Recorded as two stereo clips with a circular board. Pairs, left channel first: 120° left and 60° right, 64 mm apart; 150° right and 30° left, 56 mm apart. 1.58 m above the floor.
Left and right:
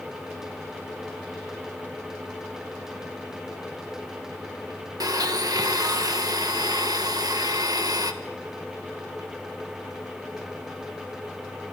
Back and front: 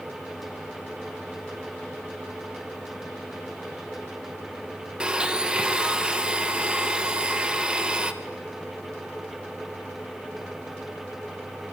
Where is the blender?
45° right, 1.4 m.